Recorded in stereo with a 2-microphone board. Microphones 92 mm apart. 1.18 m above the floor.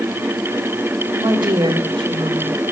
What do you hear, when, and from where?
1.2 s a woman speaking: 60° right (ahead or behind), 2.5 m; by 2.6 s 80° right, 4 m